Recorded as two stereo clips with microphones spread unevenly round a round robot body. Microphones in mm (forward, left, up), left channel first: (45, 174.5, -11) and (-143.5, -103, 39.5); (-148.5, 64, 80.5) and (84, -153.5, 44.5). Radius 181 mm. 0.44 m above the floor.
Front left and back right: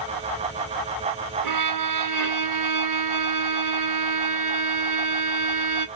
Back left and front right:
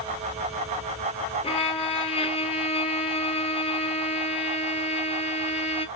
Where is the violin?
150° right, 1.1 m.